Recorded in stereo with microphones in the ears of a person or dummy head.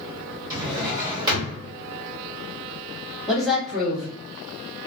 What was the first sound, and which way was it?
A drawer, 25° right (ahead or behind).